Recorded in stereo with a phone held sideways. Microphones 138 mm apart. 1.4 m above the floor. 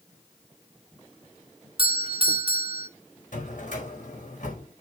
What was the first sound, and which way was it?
A doorbell, 40° right (ahead or behind).